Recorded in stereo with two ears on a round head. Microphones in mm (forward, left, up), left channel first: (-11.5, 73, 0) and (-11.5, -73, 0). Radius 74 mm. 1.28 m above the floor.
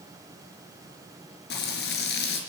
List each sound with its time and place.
1.5 s frying: 65° left (ahead or behind), 4 m